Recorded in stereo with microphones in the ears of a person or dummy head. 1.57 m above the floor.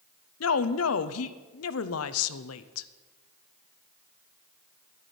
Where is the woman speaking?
80° left, 0.8 m.